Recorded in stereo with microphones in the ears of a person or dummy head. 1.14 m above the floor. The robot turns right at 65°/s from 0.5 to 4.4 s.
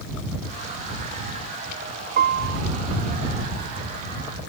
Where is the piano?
50° right (ahead or behind); by 2.6 s 80° right.